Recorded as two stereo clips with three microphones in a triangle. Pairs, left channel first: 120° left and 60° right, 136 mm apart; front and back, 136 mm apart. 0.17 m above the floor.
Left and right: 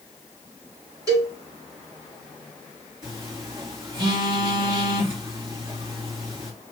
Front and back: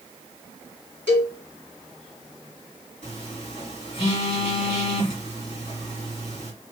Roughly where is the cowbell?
Right.